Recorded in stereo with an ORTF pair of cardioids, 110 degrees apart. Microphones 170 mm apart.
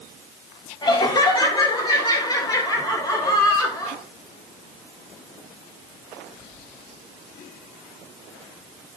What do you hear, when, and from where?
0.8 s laughter: 25° left, 4.5 m; by 4.0 s 20° left, 7.5 m